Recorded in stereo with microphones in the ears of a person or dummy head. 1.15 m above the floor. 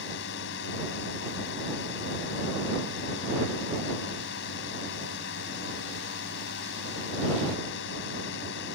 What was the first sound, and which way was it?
A drone, 65° left (ahead or behind).